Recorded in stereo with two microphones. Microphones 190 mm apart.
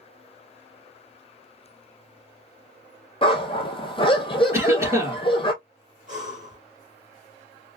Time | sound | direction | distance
3.2 | a dog barking | 25° left (ahead or behind) | 1.0 m
4.5 | a cough | 15° right (ahead or behind) | 2.5 m
6.1 | breathing | 40° right (ahead or behind) | 1.5 m